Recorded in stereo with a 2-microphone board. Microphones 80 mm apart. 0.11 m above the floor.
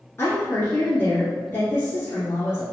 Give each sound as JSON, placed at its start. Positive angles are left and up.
{"t": 0.2, "sound": "a woman speaking", "side_deg": 35, "distance_m": 1.9}